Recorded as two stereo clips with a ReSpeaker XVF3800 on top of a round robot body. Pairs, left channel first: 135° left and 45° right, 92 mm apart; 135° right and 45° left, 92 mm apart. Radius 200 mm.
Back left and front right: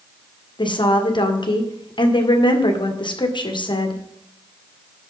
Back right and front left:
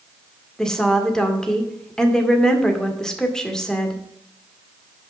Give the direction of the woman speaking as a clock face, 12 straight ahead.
7 o'clock.